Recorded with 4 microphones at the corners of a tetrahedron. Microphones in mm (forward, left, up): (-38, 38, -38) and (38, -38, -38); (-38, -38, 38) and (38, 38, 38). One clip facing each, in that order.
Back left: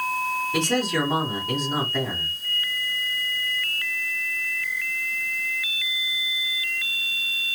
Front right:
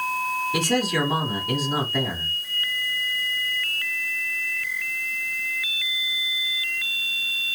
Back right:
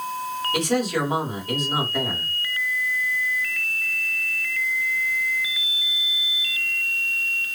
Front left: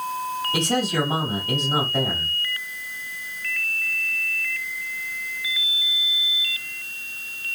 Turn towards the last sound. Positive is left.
turn(degrees=30)